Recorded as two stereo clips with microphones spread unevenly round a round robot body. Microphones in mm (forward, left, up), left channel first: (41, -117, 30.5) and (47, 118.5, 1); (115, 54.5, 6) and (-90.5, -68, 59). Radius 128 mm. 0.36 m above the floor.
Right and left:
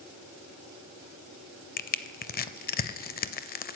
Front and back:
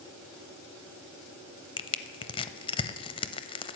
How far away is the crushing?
About 0.5 m.